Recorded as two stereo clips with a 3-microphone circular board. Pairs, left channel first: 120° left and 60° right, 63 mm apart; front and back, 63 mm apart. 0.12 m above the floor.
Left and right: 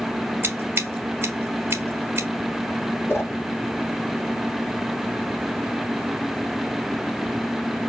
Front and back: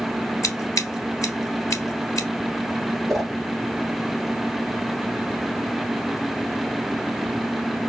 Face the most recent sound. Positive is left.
turn(degrees=90)